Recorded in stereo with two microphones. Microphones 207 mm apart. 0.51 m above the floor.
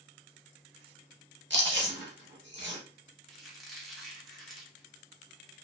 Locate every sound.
1.5 s chewing: 70° right (ahead or behind), 0.9 m
3.3 s a squeak: centre (ahead or behind), 0.8 m